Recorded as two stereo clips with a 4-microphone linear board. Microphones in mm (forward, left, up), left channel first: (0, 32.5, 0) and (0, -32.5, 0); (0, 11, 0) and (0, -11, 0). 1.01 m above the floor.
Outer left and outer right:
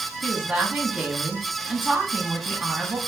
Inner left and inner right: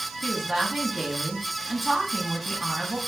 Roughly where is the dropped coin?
I don't hear a dropped coin.